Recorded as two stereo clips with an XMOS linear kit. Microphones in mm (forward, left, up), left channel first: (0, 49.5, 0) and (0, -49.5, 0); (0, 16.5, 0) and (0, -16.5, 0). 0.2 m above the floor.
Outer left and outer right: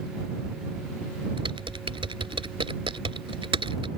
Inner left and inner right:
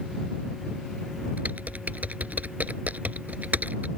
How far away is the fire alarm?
I don't hear a fire alarm.